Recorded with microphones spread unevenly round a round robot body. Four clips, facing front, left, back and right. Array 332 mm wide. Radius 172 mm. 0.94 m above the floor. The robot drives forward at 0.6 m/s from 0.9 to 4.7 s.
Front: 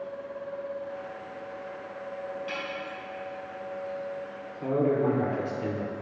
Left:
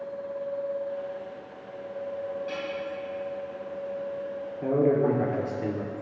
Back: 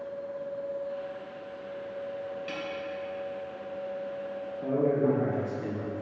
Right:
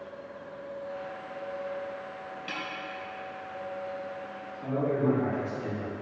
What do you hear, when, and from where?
2.5 s a snare drum: 130° right, 2.5 m
4.6 s a man speaking: 65° left, 2.5 m